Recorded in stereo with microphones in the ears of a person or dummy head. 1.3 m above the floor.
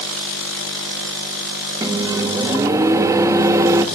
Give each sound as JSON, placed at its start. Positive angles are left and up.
{"t": 1.8, "sound": "a microwave", "side_deg": -15, "distance_m": 1.1}